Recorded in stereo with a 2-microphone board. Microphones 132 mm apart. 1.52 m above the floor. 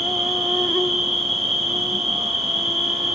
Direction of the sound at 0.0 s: Centre (ahead or behind).